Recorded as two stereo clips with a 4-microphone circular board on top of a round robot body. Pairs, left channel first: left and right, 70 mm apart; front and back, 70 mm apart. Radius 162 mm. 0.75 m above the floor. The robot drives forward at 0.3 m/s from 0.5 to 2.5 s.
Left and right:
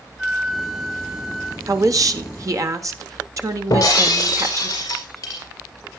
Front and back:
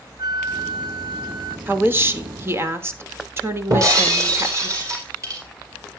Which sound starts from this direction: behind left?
Breaking glass, at 3.7 s.